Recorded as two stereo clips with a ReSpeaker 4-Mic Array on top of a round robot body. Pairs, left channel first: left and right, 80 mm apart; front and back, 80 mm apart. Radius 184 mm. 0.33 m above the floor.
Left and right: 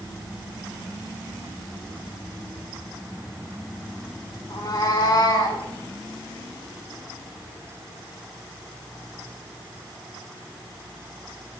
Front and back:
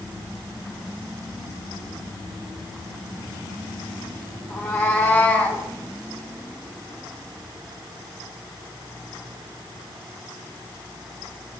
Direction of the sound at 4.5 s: 55° left.